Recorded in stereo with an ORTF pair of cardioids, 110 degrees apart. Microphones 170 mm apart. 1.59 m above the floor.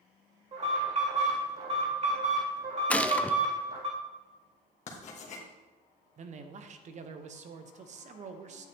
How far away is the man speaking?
About 1.1 m.